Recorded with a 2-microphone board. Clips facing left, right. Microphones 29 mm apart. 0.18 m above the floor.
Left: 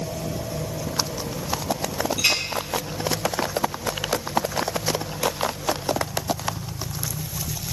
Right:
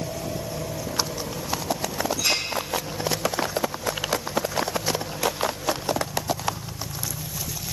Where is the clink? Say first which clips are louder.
Left 3 dB; 60° left (ahead or behind), 3 m.